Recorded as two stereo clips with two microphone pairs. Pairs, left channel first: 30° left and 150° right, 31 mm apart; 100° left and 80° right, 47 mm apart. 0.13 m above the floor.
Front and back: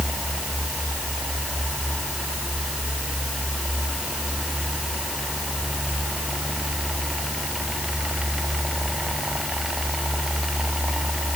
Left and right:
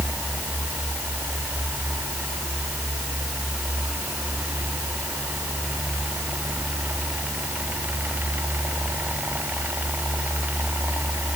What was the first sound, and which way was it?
Only background noise.